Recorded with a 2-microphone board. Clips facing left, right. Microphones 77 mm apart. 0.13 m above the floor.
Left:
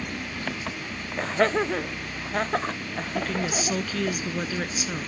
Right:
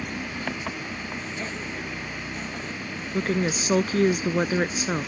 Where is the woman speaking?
35° right (ahead or behind).